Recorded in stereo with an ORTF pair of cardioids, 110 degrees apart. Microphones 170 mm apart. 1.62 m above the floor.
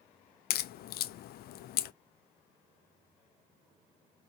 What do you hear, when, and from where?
0.5 s a crack: 65° left, 0.5 m